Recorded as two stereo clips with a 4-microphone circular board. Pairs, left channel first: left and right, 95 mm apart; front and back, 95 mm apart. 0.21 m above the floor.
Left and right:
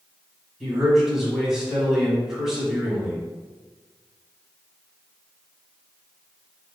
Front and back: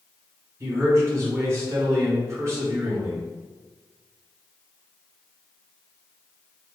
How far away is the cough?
No cough in this recording.